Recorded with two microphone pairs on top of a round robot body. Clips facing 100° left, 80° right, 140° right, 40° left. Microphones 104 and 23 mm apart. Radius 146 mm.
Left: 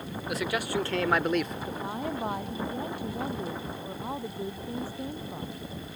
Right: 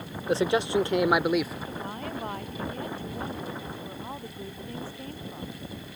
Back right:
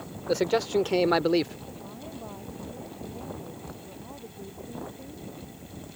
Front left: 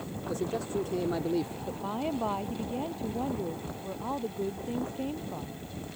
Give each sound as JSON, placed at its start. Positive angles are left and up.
{"t": 0.3, "sound": "a man speaking", "azimuth_deg": -135}
{"t": 1.7, "sound": "a woman speaking", "azimuth_deg": 25}